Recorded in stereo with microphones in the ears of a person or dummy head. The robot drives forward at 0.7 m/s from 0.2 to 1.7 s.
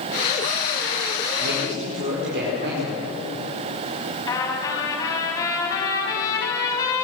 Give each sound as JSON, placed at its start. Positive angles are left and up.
{"t": 1.4, "sound": "a man speaking", "side_deg": -65, "distance_m": 5.5}
{"t": 4.3, "sound": "a trumpet", "side_deg": 15, "distance_m": 4.5}